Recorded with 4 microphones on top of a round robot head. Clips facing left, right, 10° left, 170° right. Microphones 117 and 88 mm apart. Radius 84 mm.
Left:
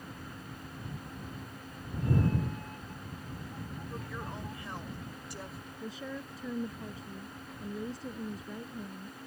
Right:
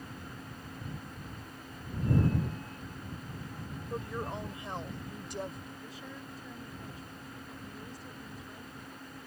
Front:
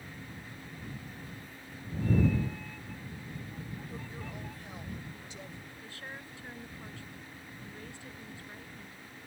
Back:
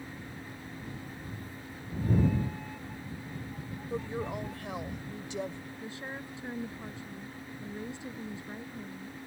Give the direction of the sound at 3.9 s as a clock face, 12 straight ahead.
5 o'clock.